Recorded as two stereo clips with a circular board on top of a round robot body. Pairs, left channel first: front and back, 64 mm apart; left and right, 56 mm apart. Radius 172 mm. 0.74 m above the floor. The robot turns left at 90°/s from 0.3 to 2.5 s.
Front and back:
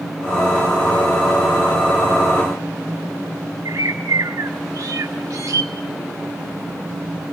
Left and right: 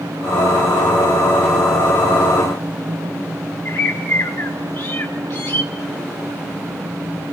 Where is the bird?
130° left, 0.9 m.